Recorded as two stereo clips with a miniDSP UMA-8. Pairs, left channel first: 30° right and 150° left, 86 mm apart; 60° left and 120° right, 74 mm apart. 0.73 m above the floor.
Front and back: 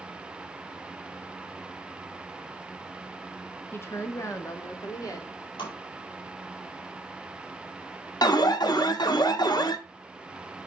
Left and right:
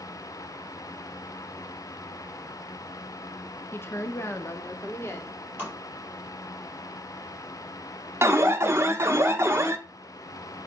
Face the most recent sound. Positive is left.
turn(degrees=-70)